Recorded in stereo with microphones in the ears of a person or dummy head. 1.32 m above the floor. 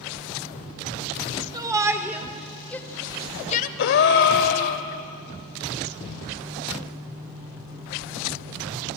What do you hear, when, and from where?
1.5 s a shout: 20° right (ahead or behind), 2.5 m; by 3.7 s 45° left (ahead or behind), 1.4 m
3.8 s a gasp: 50° left (ahead or behind), 1.5 m